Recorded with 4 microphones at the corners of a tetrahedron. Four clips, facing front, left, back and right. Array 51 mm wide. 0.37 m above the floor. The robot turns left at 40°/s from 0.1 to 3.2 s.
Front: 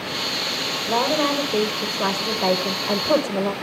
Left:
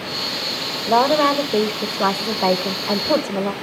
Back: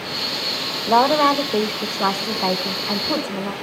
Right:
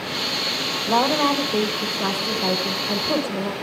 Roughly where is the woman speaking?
Behind left.